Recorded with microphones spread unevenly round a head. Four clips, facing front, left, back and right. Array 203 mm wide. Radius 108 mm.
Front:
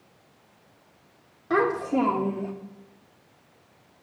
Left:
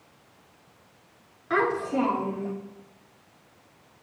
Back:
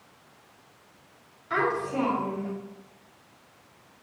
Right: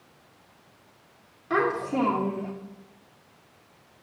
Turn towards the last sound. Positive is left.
turn(degrees=-30)